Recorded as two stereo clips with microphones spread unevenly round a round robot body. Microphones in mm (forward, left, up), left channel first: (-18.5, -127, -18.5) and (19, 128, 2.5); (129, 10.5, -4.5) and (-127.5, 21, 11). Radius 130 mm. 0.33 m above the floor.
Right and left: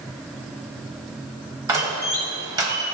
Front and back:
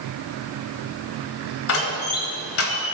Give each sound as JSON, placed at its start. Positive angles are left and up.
{"t": 1.7, "sound": "a door slam", "azimuth_deg": 5, "distance_m": 1.4}